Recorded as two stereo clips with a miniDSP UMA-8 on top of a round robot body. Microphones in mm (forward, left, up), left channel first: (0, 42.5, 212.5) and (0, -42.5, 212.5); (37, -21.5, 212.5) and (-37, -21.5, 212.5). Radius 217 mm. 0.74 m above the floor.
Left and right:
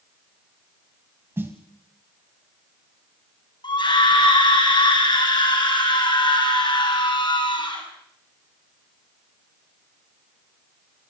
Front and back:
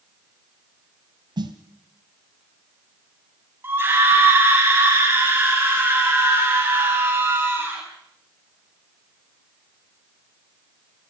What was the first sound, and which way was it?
A snare drum, 155° right.